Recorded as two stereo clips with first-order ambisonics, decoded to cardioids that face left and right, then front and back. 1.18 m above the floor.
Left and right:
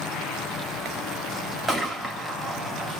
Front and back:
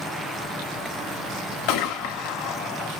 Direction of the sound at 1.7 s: 10° right.